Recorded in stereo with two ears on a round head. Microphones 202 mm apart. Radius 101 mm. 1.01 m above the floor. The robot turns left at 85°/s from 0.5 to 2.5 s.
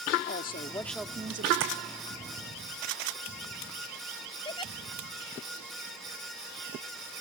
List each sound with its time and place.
0.3 s a woman speaking: 40° left; by 1.5 s 45° right
1.6 s tapping: 55° right (ahead or behind); by 1.7 s 70° right (ahead or behind)
4.5 s a giggle: 20° left (ahead or behind)